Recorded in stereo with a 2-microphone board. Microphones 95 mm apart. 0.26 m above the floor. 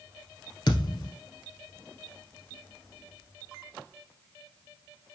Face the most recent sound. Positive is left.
turn(degrees=50)  # may be behind; listen again after turning